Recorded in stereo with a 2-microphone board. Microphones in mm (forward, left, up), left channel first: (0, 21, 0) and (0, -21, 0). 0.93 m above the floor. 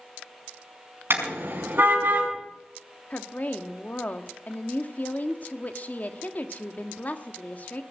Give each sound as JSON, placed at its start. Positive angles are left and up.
{"t": 1.1, "sound": "a car horn", "side_deg": -60, "distance_m": 5.0}
{"t": 3.1, "sound": "a woman speaking", "side_deg": 40, "distance_m": 1.4}